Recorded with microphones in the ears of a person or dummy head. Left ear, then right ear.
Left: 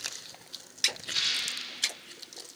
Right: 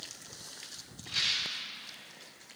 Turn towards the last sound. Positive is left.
turn(degrees=5)  # may be behind; listen again after turning